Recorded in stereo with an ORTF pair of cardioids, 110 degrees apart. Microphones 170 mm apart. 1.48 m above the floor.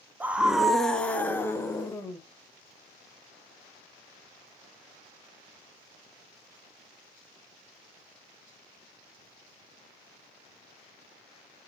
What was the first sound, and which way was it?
A scream, 10° right.